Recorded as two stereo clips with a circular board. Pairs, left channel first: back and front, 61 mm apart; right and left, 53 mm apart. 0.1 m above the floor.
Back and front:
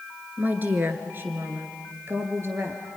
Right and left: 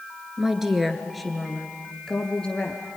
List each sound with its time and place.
0.4 s a woman speaking: 25° left, 1.8 m; by 2.8 s 25° right, 2.5 m